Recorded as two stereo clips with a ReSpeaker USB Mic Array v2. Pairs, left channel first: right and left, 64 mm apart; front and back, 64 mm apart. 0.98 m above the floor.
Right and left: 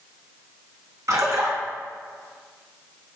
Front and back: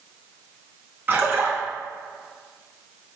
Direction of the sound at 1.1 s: 125° left.